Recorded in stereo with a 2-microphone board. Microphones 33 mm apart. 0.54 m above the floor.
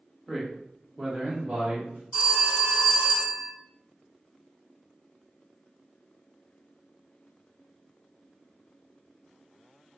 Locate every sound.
0.3 s a man speaking: centre (ahead or behind), 0.7 m; by 2.0 s 25° right (ahead or behind), 1.1 m
2.1 s a phone ringing: 25° right (ahead or behind), 1.2 m